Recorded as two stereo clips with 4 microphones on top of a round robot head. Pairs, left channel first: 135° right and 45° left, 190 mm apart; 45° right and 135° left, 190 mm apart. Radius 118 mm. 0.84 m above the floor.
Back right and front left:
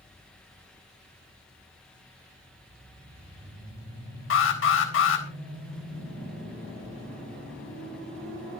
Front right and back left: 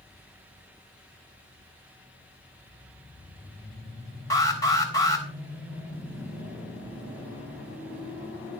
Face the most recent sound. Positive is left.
turn(degrees=-120)